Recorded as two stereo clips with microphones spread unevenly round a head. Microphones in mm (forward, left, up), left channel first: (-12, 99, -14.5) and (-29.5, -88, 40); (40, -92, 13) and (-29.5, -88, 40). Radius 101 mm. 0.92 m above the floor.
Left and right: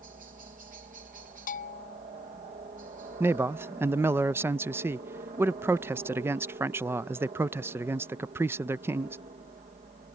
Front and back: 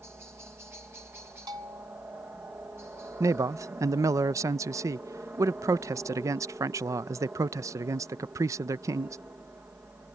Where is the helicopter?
125° right.